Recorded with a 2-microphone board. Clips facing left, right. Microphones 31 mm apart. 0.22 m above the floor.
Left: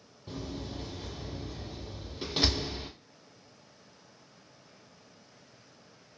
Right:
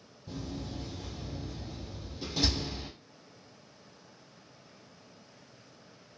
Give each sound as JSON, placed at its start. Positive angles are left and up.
{"t": 0.3, "sound": "a door slam", "side_deg": 45, "distance_m": 1.0}